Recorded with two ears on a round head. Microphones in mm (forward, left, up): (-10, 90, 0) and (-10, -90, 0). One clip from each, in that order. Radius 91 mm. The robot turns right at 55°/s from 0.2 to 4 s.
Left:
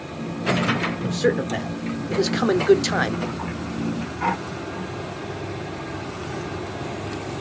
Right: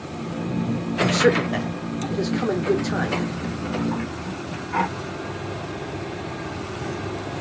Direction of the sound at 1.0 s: 30° right.